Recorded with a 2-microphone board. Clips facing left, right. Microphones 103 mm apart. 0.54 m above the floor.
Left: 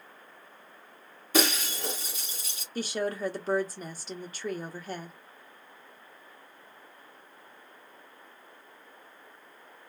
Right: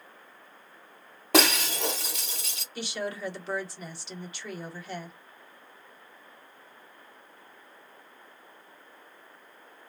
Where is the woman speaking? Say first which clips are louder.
Left 3 dB; 40° left (ahead or behind), 0.9 m.